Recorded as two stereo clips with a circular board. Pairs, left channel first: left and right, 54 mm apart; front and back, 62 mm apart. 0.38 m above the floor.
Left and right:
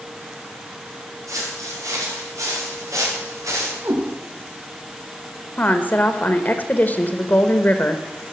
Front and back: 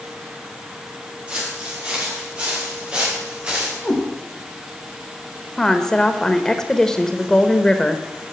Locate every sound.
1.3 s footsteps: 110° right, 7 m; by 3.7 s 105° right, 4 m
3.8 s a cat meowing: 80° right, 5 m
5.6 s a woman speaking: 75° left, 0.9 m